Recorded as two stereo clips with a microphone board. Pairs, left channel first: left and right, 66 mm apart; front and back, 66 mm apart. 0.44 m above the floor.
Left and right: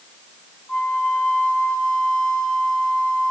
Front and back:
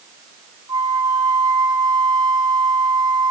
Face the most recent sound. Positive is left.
turn(degrees=170)